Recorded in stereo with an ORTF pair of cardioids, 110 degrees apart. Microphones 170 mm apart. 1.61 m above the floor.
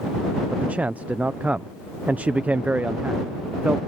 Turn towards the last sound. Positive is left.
turn(degrees=-10)